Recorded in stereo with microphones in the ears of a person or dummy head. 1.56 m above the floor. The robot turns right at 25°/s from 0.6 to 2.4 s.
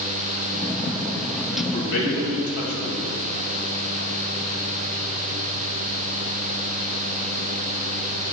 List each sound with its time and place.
1.6 s a man speaking: 60° left (ahead or behind), 2.5 m; by 3.1 s 80° left, 2.5 m